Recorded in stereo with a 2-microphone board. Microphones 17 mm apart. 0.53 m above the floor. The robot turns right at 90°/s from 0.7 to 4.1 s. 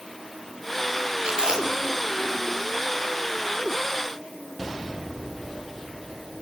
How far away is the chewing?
About 8 m.